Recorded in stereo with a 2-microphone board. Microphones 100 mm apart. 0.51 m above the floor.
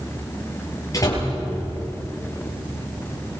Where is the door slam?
35° left (ahead or behind), 9 m.